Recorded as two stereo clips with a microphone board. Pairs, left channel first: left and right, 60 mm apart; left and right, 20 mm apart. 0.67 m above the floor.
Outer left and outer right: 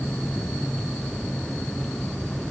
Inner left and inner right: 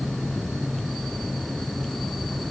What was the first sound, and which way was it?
Only background noise.